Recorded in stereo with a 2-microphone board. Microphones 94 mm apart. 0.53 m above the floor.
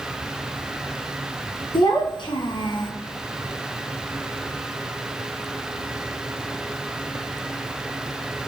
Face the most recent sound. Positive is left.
turn(degrees=55)  # may be behind; listen again after turning